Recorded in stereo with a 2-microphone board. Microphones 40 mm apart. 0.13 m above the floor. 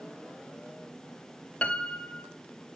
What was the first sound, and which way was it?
A piano, 30° left (ahead or behind).